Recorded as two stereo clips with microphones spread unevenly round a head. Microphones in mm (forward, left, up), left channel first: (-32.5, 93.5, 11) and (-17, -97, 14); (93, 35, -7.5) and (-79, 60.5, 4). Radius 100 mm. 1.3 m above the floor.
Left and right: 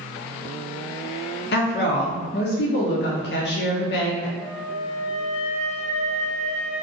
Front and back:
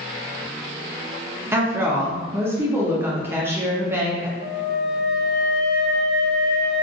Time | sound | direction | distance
1.5 | a woman speaking | 95° left | 0.6 m
4.4 | a flute | 5° left | 1.8 m